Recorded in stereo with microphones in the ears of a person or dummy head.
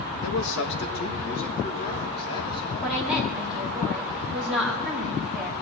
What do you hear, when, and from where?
0.2 s a man speaking: 85° left, 1.3 m; by 3.0 s 25° left (ahead or behind), 3.5 m
2.8 s a woman speaking: centre (ahead or behind), 2 m